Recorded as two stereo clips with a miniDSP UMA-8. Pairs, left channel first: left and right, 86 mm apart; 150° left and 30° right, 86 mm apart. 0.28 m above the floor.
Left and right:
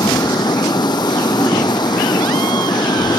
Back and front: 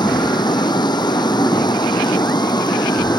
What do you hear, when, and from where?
0.0 s running water: 120° left